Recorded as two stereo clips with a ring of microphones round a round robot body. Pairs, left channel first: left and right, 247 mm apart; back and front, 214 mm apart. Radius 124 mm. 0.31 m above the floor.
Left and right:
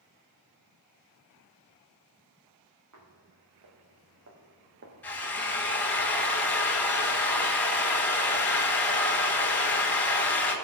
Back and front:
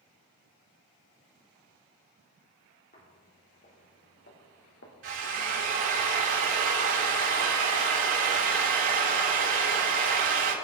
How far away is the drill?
About 4.5 m.